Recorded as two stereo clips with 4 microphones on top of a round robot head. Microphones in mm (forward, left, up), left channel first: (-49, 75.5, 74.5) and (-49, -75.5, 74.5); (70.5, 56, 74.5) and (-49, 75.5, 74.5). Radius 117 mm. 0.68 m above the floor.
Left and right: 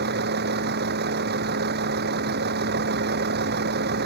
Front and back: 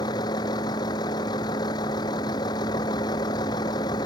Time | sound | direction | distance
0.0 | a vehicle | 75° right | ?